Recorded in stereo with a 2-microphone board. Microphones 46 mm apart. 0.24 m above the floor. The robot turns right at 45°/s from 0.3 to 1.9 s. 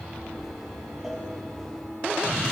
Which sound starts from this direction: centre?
A cowbell, at 1.0 s.